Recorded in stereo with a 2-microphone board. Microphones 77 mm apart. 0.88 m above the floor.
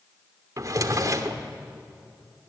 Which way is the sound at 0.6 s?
50° right (ahead or behind).